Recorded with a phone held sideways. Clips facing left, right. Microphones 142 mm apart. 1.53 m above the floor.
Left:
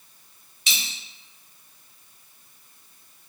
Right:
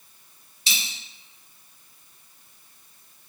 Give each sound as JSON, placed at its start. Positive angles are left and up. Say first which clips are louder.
{"t": 0.7, "sound": "a dropped coin", "louder": "even", "side_deg": -30, "distance_m": 0.9}